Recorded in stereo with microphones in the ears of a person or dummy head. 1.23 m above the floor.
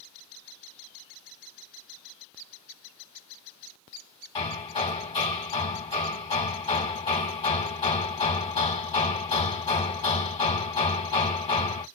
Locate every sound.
4.3 s hammering: 20° left (ahead or behind), 1.4 m